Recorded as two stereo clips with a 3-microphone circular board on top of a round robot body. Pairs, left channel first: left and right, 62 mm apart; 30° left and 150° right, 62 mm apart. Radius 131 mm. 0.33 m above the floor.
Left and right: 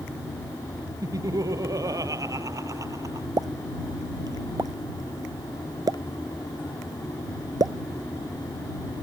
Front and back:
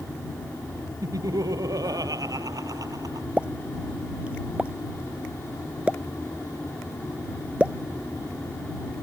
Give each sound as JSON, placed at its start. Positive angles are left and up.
{"t": 1.0, "sound": "laughter", "azimuth_deg": -120}
{"t": 3.4, "sound": "a pop", "azimuth_deg": -80}